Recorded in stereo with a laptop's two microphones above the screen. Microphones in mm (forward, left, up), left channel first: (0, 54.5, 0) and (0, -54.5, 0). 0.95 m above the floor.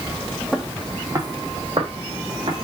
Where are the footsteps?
Centre (ahead or behind), 1.1 m; by 2.6 s 60° right (ahead or behind), 3 m.